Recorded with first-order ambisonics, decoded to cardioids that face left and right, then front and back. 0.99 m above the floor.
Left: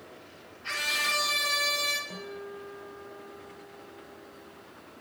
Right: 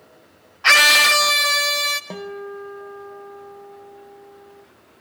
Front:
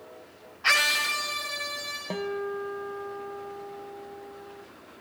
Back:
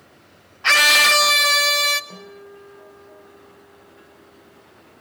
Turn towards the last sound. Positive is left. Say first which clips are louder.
# right 8 dB, front 9 dB
turn(degrees=-45)